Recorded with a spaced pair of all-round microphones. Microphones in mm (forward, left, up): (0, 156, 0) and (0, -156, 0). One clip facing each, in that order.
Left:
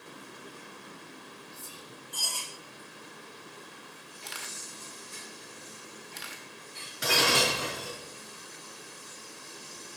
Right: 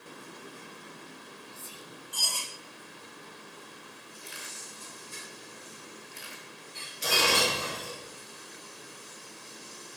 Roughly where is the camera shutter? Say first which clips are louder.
Left 2 dB; left.